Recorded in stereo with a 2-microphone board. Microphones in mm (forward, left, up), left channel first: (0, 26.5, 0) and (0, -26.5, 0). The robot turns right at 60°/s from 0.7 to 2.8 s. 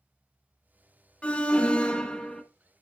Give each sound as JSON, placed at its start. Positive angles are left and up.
{"t": 1.2, "sound": "an alarm", "side_deg": 20, "distance_m": 1.1}